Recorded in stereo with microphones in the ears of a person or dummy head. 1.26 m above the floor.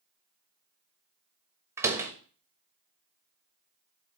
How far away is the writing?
No writing in this recording.